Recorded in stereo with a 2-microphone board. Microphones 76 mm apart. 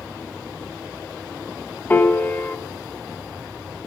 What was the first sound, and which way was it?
A piano, 25° left (ahead or behind).